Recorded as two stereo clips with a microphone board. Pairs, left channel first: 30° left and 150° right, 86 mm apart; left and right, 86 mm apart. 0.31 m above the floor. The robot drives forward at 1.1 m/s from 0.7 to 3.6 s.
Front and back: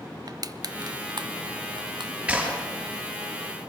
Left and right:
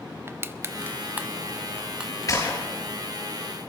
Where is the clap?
135° left, 5.5 m.